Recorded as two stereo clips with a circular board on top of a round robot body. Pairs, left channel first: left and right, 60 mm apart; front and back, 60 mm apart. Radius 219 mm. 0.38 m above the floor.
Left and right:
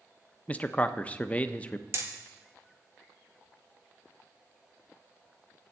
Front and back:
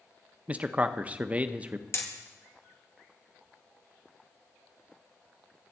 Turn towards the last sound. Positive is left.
turn(degrees=-45)